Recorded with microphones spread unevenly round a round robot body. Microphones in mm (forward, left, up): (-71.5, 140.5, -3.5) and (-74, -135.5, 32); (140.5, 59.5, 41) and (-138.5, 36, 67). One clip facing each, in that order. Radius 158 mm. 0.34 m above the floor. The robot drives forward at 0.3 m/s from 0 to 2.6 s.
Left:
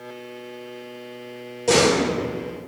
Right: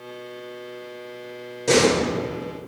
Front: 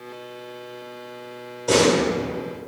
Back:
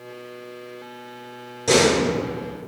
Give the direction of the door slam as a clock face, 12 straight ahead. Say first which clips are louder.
Even, even; 5 o'clock.